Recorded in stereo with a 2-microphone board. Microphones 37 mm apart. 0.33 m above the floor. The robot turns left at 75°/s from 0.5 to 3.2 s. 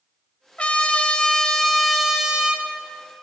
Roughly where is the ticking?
No ticking in this recording.